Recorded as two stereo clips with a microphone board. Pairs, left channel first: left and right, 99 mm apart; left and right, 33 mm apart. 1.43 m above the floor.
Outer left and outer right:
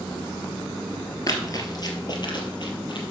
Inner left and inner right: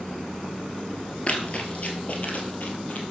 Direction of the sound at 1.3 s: 40° left (ahead or behind).